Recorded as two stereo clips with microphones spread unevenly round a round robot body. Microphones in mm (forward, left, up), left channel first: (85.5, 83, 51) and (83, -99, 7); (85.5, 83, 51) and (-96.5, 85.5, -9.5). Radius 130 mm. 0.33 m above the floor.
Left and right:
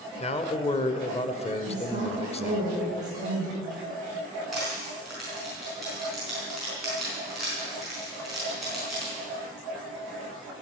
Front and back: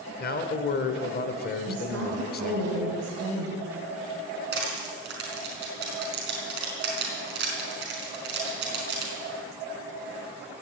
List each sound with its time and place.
0.2 s a man speaking: 30° left, 1.0 m
1.7 s a woman speaking: 160° right, 3.5 m
4.5 s crushing: 175° right, 4 m